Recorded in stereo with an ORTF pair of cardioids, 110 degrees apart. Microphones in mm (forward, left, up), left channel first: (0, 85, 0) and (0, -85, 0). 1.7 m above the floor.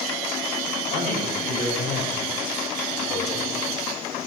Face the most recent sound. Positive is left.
turn(degrees=50)